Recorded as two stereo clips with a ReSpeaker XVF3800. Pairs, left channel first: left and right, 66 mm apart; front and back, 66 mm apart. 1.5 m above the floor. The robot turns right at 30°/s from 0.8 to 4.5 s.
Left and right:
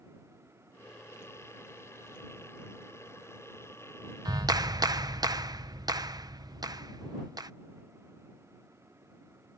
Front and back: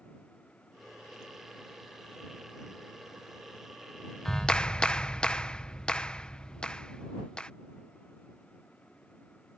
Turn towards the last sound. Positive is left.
turn(degrees=-75)